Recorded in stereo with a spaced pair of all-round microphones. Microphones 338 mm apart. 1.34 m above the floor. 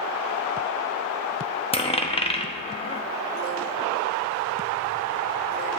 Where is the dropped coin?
15° left (ahead or behind), 0.7 m.